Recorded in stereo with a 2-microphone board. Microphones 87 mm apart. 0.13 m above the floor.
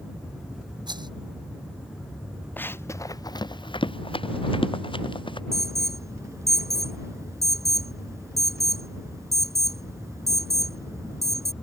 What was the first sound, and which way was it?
A rattle, 55° right (ahead or behind).